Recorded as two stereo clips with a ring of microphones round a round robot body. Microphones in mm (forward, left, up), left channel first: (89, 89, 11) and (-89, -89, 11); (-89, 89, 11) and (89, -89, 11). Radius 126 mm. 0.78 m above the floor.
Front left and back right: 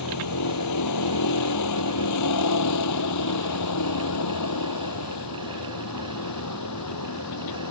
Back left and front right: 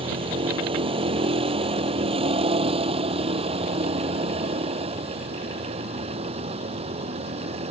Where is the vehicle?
25° left; by 7.7 s 20° left.